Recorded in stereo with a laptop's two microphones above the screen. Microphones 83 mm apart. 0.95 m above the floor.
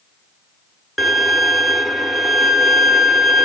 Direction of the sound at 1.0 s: Centre (ahead or behind).